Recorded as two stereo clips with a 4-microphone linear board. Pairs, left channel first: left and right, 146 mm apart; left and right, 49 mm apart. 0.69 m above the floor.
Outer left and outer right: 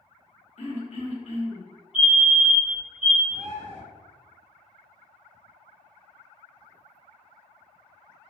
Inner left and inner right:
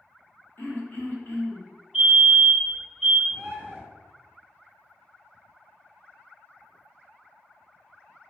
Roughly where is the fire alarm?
Centre.